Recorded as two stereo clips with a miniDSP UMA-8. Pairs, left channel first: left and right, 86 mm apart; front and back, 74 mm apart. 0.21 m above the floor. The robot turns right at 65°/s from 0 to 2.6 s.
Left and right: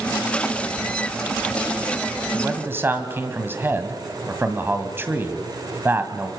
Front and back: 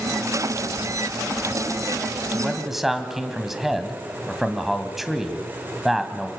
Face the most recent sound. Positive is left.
turn(degrees=-95)